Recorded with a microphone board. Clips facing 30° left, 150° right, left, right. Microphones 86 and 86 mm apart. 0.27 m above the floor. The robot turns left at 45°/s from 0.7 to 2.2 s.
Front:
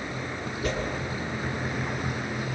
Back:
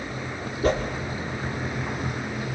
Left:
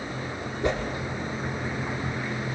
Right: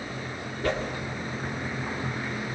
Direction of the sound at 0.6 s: 160° left.